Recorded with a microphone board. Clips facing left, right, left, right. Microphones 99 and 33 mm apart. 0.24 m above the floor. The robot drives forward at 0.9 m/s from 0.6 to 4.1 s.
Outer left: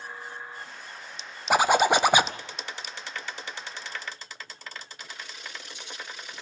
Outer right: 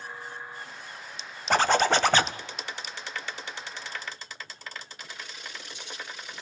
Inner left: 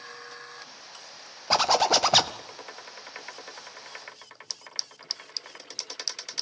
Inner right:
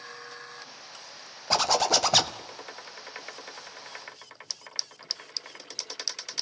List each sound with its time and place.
1.5 s a zipper: 10° left (ahead or behind), 0.7 m